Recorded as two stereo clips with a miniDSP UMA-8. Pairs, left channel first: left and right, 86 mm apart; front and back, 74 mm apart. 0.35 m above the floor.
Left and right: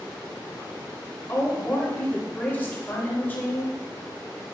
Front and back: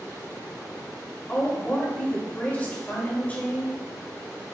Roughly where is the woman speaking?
Ahead left.